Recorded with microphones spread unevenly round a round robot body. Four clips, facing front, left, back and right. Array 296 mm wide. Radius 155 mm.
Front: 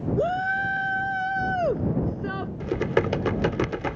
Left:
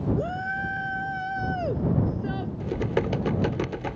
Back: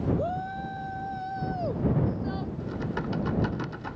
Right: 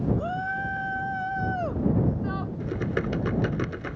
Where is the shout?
10° left; by 2.5 s 25° left.